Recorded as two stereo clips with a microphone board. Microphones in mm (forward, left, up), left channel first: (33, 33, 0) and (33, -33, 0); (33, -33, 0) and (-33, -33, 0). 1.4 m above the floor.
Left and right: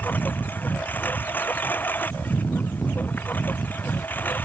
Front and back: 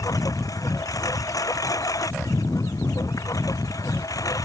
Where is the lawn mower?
30° left.